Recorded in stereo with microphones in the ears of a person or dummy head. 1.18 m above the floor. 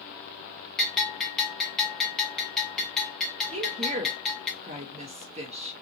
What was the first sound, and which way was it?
A bell, centre (ahead or behind).